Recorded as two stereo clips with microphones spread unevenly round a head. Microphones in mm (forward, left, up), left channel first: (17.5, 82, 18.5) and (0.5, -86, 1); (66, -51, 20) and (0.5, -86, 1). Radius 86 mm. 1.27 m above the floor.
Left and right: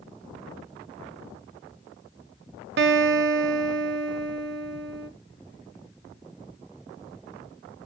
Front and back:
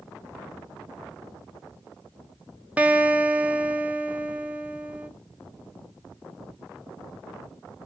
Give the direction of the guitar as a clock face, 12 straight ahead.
2 o'clock.